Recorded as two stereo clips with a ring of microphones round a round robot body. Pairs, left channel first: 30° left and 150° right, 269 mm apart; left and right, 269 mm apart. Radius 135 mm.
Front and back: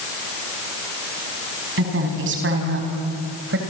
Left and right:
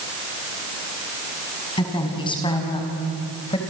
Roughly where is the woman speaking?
Behind.